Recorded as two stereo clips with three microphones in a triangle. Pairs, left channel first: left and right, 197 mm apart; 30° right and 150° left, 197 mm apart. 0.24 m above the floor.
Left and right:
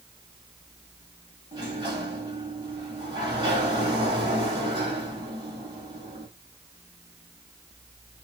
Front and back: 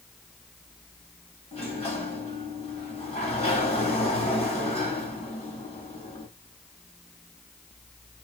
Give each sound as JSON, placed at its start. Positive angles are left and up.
{"t": 1.5, "sound": "a sliding door", "azimuth_deg": -45, "distance_m": 1.4}